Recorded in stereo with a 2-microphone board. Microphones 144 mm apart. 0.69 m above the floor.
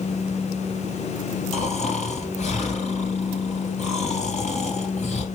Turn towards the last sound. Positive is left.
turn(degrees=55)  # may be behind; listen again after turning